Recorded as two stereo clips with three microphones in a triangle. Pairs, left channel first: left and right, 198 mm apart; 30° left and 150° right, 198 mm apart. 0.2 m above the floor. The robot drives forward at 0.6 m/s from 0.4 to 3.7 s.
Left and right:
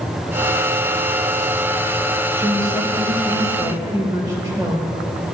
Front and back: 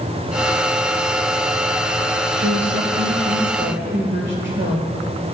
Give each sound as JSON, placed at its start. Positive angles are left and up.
{"t": 2.3, "sound": "a woman speaking", "azimuth_deg": -160, "distance_m": 3.5}